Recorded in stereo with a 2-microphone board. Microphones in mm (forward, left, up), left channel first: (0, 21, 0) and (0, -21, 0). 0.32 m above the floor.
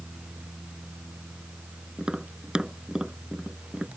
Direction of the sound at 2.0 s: 20° right (ahead or behind).